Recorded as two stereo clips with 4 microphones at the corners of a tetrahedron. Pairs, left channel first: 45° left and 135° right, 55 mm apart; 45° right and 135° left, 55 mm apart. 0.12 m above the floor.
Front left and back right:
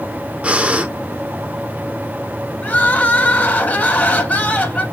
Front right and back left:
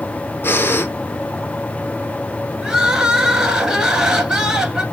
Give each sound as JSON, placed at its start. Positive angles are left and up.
{"t": 0.4, "sound": "breathing", "azimuth_deg": -75, "distance_m": 0.6}
{"t": 2.6, "sound": "crying", "azimuth_deg": 70, "distance_m": 0.9}